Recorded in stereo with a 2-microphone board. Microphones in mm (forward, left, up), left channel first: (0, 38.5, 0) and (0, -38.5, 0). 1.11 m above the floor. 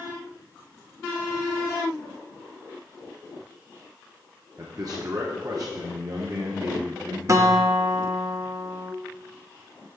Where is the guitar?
40° right (ahead or behind), 0.6 m.